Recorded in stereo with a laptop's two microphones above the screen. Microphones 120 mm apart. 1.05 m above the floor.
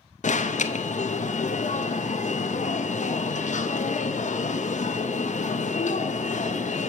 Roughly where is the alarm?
Left.